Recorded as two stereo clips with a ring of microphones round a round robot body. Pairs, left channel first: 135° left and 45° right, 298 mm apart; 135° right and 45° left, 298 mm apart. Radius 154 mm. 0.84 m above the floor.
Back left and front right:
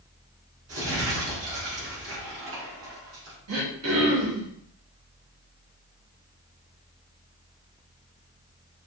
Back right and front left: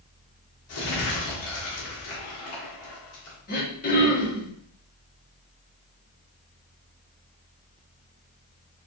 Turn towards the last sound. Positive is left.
turn(degrees=-75)